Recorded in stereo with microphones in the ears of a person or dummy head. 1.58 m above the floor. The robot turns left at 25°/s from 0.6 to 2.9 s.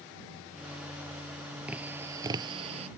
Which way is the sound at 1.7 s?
5° right (ahead or behind).